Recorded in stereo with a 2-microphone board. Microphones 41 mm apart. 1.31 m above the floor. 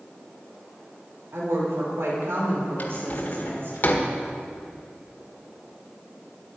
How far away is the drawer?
About 1.7 m.